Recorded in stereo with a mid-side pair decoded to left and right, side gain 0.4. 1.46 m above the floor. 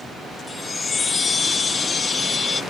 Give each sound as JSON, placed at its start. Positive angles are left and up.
{"t": 0.5, "sound": "a chime", "azimuth_deg": 40}